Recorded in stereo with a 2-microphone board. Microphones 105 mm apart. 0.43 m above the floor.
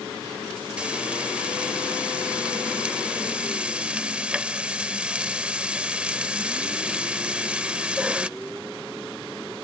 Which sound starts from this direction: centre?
Frying, at 0.8 s.